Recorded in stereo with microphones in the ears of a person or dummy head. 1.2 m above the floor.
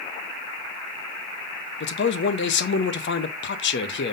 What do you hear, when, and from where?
1.8 s a man speaking: 55° left (ahead or behind), 0.6 m